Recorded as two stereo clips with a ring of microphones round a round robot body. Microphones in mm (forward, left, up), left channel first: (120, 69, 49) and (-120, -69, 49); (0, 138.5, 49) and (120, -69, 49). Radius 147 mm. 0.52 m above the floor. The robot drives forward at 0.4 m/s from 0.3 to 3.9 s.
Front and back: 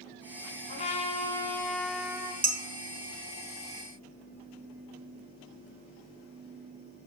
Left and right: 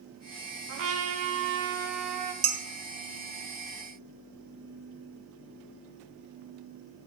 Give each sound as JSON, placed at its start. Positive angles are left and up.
{"t": 0.7, "sound": "a trumpet", "azimuth_deg": -35, "distance_m": 1.0}
{"t": 2.4, "sound": "dishes clattering", "azimuth_deg": -90, "distance_m": 1.6}